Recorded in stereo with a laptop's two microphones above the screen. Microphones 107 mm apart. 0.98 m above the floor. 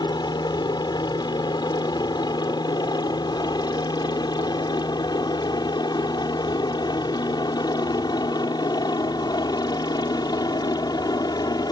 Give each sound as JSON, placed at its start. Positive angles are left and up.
{"t": 0.0, "sound": "a helicopter", "side_deg": 40}